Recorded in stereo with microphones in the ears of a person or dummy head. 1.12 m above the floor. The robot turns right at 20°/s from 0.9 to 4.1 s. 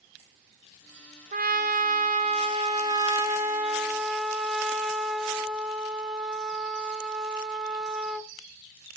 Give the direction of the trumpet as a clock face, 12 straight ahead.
2 o'clock.